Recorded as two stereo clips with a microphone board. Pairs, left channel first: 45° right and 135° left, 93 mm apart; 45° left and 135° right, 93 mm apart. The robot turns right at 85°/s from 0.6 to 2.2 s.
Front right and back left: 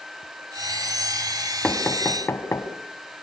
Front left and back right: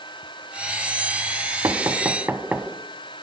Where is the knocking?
125° right, 1.3 m; by 2.7 s 75° right, 1.3 m.